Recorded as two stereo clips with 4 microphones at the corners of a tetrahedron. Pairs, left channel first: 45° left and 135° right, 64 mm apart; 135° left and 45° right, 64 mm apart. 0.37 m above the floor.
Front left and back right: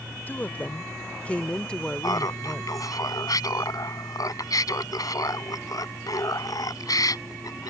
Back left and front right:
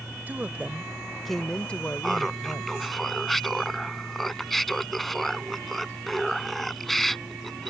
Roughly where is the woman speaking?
Ahead.